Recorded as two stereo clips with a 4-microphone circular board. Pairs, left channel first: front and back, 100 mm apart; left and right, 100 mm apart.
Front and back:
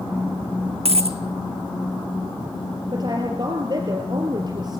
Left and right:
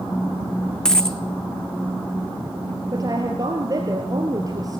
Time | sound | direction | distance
0.8 | a dropped coin | 175° left | 1.1 m
2.9 | a woman speaking | 140° right | 3 m